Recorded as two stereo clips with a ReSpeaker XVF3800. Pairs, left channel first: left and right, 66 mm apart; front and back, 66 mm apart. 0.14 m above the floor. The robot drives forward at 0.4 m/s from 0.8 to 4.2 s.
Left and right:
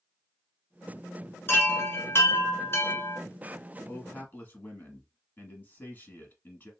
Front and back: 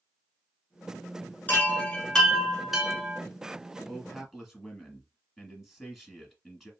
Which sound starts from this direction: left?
A man speaking, at 3.9 s.